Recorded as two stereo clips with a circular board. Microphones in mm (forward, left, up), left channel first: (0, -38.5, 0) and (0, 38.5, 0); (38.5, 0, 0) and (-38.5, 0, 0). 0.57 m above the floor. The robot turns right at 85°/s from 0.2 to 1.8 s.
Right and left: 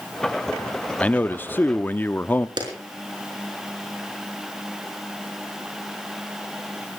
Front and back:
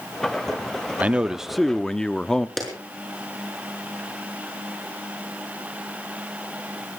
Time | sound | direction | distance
1.0 | a man speaking | 135° right | 0.6 m
2.6 | a clap | 85° left | 5.5 m